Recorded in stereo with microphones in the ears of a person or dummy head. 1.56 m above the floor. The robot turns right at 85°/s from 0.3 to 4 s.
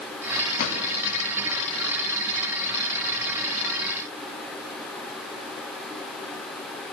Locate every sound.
0.6 s a drawer: 45° left (ahead or behind), 3.5 m; by 0.8 s 30° left (ahead or behind), 3.5 m